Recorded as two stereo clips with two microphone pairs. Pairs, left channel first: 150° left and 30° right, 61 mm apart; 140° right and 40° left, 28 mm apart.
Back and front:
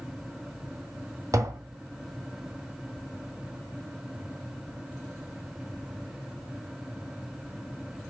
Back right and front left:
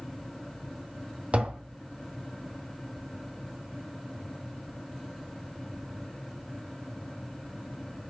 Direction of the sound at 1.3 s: 5° right.